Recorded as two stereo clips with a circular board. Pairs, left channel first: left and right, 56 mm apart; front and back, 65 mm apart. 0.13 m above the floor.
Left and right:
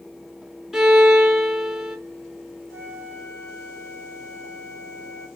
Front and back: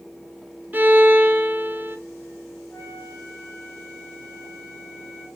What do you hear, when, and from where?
0.7 s a violin: 175° right, 1.4 m
2.7 s a flute: 70° left, 3 m